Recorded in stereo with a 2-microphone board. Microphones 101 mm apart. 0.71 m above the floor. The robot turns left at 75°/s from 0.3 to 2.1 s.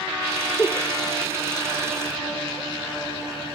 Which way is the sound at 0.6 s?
10° left (ahead or behind).